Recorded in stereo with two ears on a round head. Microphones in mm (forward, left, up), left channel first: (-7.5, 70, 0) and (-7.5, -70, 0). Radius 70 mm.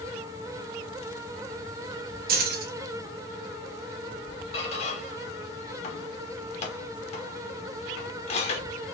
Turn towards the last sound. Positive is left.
turn(degrees=40)  # may be behind; listen again after turning